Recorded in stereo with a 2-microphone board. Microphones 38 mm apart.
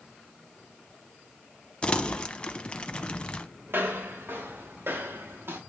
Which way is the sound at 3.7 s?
75° right (ahead or behind).